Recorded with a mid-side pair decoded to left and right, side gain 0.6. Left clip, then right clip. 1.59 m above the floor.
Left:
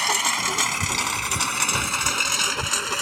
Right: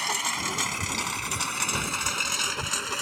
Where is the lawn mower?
30° left; by 3.0 s 25° left.